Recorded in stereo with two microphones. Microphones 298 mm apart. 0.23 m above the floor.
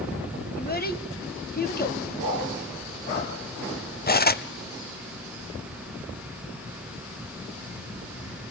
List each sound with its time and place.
0.6 s a child speaking: 30° left (ahead or behind), 1.1 m
2.2 s a dog barking: 45° left (ahead or behind), 7.5 m
4.1 s cutlery clinking: 30° left (ahead or behind), 0.7 m